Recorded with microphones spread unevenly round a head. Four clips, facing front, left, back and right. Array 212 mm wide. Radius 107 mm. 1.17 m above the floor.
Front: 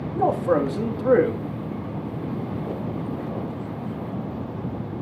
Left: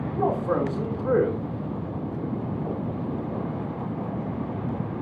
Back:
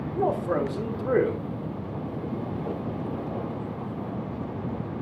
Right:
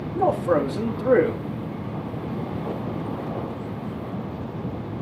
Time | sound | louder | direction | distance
0.1 | a man speaking | right 4 dB, front 5 dB | 25° right | 2 m